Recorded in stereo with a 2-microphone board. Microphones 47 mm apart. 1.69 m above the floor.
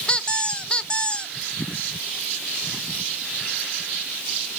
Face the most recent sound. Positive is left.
turn(degrees=20)  # may be behind; listen again after turning